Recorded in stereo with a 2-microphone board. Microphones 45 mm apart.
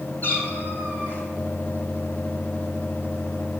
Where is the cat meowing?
40° left (ahead or behind), 4.5 m.